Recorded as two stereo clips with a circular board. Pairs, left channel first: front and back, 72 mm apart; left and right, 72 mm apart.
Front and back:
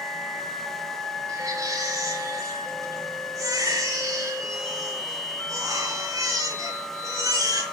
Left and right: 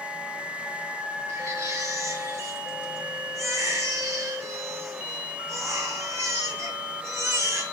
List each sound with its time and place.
1.3 s a baby crying: 140° right, 4.5 m